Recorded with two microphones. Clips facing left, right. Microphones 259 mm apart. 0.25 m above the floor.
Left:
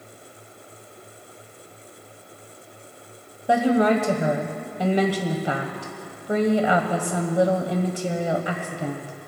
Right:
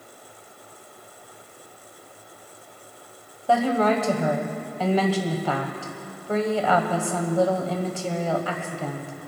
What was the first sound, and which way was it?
A woman speaking, 20° left (ahead or behind).